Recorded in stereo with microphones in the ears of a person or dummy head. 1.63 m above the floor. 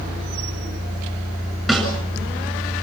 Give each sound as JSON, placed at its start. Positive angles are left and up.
{"t": 1.7, "sound": "a snare drum", "side_deg": 0, "distance_m": 8.0}